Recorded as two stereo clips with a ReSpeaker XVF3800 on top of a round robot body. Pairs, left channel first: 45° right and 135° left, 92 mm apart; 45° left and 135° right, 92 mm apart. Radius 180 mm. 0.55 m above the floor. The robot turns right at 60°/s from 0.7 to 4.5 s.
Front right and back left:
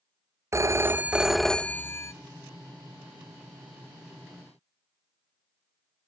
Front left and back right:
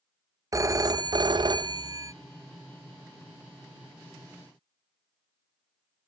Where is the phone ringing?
175° right, 0.5 m; by 2.1 s 90° right, 0.5 m.